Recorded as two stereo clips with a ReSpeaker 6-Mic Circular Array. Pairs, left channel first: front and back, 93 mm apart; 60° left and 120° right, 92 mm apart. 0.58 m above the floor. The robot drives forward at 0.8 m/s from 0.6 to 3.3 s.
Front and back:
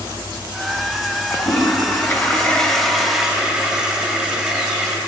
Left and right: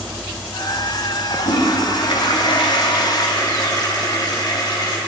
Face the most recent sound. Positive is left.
turn(degrees=100)